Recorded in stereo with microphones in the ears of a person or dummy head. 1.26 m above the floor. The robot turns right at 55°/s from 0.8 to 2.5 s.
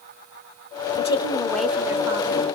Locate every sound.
1.0 s a woman speaking: 145° left, 1.2 m; by 2.5 s 135° right, 1.2 m